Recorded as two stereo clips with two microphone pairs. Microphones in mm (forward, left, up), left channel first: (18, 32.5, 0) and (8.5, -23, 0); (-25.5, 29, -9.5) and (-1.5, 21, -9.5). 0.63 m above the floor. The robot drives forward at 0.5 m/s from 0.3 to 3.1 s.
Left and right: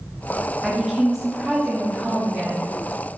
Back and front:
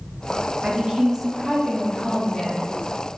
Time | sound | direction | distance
0.6 | a woman speaking | 15° right | 0.6 m